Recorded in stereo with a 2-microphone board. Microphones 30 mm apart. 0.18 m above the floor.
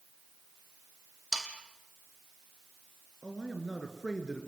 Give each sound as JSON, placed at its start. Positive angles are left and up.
{"t": 1.3, "sound": "sawing", "side_deg": 20, "distance_m": 3.0}
{"t": 3.2, "sound": "a man speaking", "side_deg": 0, "distance_m": 3.5}